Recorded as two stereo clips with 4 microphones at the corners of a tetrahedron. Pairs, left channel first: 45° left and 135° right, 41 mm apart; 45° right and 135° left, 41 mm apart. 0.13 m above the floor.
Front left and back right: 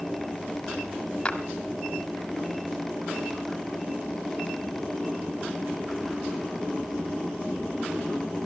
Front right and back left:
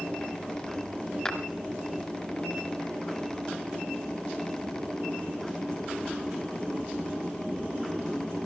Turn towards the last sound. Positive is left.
turn(degrees=0)